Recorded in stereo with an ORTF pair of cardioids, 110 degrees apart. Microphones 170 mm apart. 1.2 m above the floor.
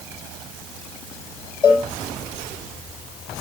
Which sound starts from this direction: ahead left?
A cowbell, at 1.6 s.